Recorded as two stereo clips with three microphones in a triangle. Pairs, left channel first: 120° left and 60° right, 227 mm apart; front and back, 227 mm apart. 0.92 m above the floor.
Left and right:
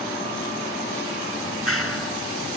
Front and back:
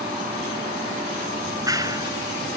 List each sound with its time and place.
1.4 s a clap: 105° left